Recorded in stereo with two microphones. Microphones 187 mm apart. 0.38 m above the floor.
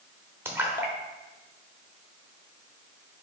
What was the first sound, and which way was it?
A splash, 10° right (ahead or behind).